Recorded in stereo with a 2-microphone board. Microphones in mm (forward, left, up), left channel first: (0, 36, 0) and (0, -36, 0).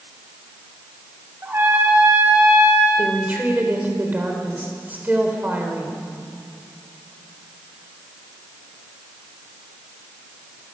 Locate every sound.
1.4 s a trumpet: 35° right (ahead or behind), 5 m
3.0 s a woman speaking: 20° right (ahead or behind), 3.5 m